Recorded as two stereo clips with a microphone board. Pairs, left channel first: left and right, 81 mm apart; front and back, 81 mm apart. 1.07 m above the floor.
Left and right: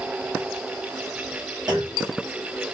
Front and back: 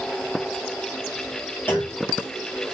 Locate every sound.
1.7 s a clunk: 65° right, 1.5 m